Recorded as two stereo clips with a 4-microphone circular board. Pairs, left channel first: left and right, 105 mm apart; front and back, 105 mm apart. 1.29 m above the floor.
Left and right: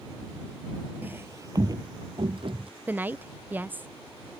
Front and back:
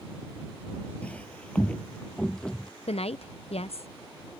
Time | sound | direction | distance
1.0 | footsteps | 55° right | ?
2.9 | a woman speaking | 15° right | ?